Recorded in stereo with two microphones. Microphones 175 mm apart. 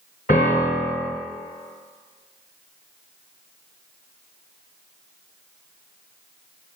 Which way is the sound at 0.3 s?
55° left (ahead or behind).